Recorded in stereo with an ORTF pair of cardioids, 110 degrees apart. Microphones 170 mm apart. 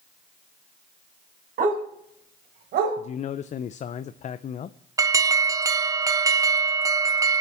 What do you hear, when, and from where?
1.6 s a dog barking: 55° right, 5 m; by 3.0 s 75° right, 3 m
3.0 s a man speaking: 45° left, 0.7 m
5.0 s an alarm: 20° right, 0.9 m